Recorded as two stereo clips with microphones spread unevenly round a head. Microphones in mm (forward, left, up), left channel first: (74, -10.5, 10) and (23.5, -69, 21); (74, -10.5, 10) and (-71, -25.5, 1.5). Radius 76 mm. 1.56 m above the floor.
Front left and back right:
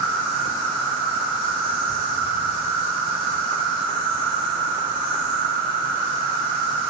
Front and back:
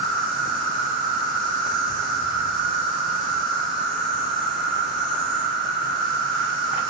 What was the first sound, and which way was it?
An insect, 70° left.